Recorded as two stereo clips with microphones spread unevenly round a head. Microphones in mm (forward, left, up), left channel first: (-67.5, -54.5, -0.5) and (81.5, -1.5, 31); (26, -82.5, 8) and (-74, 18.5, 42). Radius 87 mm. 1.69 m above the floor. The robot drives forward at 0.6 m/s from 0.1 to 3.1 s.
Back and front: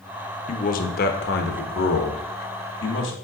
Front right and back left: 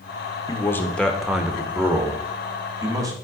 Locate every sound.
0.5 s a man speaking: 120° right, 0.8 m; by 3.1 s 165° right, 2 m